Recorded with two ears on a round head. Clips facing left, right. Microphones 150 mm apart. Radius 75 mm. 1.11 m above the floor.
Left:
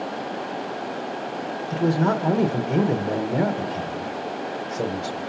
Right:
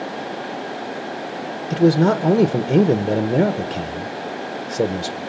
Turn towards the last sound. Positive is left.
turn(degrees=-40)  # may be behind; listen again after turning